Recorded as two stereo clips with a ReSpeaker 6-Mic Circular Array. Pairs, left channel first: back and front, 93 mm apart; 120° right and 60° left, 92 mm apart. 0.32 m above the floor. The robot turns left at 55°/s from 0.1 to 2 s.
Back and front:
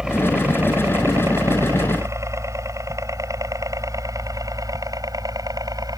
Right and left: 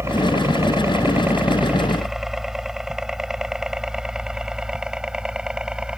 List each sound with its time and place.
0.0 s a helicopter: 75° left; by 6.0 s 20° right